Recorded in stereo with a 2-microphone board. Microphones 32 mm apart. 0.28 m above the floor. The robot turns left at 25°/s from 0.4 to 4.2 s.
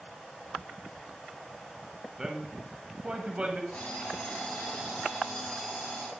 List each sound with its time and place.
2.2 s a man speaking: 20° right, 1.3 m; by 3.6 s 55° right, 1.3 m
3.7 s an alarm clock: 40° left (ahead or behind), 1.9 m; by 6.1 s 30° left (ahead or behind), 1.9 m